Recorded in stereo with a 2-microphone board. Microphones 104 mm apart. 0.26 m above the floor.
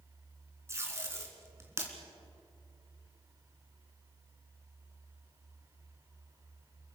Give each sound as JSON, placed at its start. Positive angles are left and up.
{"t": 0.7, "sound": "tape being pulled", "side_deg": -25, "distance_m": 3.5}